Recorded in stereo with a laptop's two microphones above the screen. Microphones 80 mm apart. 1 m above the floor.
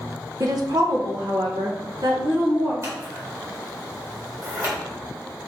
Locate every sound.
0.4 s a woman speaking: 45° right (ahead or behind), 0.8 m; by 2.7 s 65° right (ahead or behind), 2.5 m
2.8 s scissors: 40° right (ahead or behind), 2 m